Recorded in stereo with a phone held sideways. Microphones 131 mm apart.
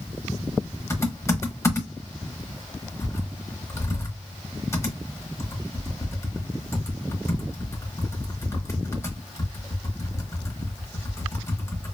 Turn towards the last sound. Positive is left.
turn(degrees=20)  # may be behind; listen again after turning